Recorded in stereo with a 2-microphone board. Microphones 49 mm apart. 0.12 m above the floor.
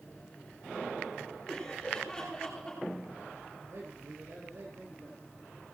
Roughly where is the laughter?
Left.